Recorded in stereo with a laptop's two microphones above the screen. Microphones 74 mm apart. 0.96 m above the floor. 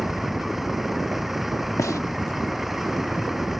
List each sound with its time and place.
0.0 s a vehicle: centre (ahead or behind)
1.8 s a gunshot: 45° left (ahead or behind)